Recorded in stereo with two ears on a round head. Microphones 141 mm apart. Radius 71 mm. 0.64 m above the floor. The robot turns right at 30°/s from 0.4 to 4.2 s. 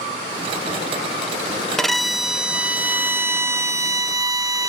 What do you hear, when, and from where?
1.8 s a violin: 5° left (ahead or behind), 0.6 m; by 4.7 s 20° right (ahead or behind), 0.6 m